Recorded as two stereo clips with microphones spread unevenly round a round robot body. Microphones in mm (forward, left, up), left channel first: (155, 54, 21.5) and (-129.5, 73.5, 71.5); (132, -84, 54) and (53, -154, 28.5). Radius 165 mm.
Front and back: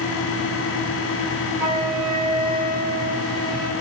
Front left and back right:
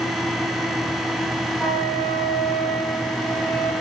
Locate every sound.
1.6 s a flute: 160° left, 5 m